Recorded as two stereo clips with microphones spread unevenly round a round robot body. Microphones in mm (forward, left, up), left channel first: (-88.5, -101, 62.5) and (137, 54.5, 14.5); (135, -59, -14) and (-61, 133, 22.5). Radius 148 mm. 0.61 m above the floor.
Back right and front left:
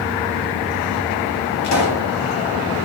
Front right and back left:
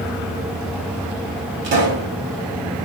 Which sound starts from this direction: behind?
A pop, at 1.6 s.